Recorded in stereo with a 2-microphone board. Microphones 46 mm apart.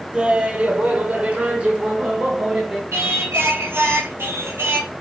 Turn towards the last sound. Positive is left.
turn(degrees=-60)  # may be behind; listen again after turning